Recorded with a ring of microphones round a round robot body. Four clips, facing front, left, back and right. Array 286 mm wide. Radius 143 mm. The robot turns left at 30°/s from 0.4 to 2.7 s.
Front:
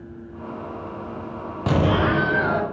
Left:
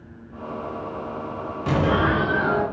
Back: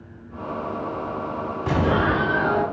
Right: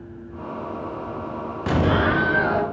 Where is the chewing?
No chewing in this recording.